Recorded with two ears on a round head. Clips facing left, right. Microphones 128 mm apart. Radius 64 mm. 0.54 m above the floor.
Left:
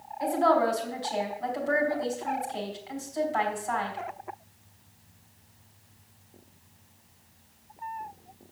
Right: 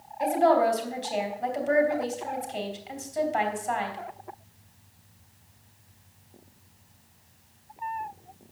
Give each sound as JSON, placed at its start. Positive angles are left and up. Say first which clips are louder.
{"t": 0.2, "sound": "a woman speaking", "louder": "right 2 dB", "side_deg": -30, "distance_m": 3.5}